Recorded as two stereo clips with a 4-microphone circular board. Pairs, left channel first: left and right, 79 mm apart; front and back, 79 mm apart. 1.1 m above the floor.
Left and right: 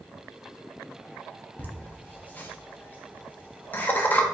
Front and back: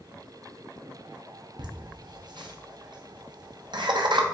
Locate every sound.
1.6 s laughter: 155° left, 0.6 m